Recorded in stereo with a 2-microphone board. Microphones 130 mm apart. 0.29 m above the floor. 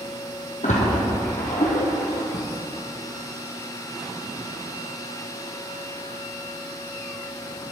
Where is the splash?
70° left (ahead or behind), 3 m.